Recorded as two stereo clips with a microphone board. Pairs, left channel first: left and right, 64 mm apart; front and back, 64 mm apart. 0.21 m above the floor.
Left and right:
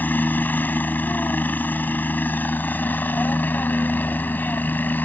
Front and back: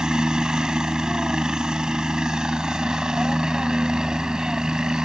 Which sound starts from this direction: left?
A helicopter, at 0.0 s.